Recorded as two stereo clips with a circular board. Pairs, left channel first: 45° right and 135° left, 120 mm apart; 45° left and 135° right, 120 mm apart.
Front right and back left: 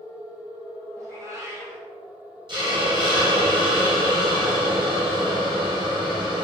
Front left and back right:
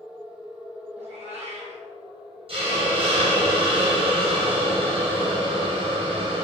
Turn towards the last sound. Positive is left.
turn(degrees=-175)